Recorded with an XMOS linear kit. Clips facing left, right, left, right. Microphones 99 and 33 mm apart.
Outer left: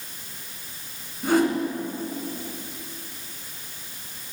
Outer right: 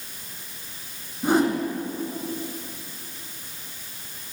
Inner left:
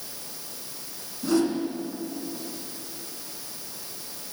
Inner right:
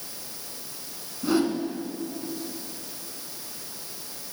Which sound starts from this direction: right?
A whoosh, at 1.2 s.